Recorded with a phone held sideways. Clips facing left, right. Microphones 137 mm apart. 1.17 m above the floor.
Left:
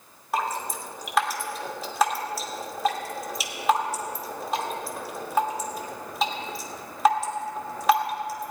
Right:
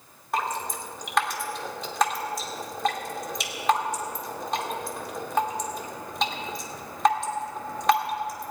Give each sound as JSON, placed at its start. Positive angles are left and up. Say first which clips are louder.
{"t": 0.3, "sound": "dripping", "louder": "left 1 dB", "side_deg": 5, "distance_m": 1.5}